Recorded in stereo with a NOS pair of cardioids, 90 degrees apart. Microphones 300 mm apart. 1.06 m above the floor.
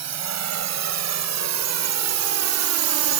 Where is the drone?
65° right; by 3.2 s 75° right.